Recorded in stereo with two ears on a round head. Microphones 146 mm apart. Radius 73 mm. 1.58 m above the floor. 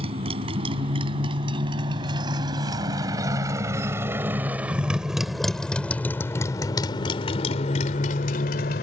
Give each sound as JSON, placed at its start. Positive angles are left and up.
{"t": 0.0, "sound": "a motorcycle", "side_deg": -35}